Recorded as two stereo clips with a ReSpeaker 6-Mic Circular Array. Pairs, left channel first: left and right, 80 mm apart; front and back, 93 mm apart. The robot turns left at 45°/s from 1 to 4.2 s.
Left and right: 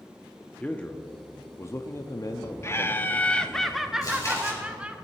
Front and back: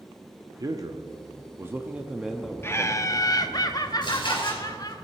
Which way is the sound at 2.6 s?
55° left.